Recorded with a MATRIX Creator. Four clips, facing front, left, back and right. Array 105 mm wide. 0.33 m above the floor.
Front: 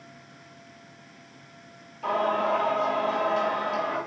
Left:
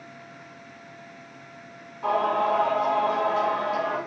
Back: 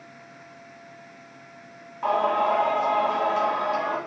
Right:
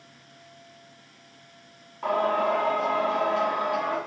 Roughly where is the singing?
Behind right.